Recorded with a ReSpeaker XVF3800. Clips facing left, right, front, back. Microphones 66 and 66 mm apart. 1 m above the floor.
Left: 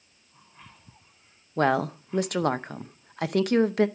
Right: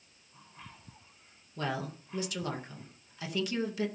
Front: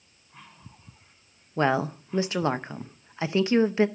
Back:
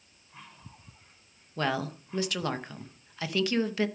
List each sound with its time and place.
1.6 s a woman speaking: 60° left, 0.6 m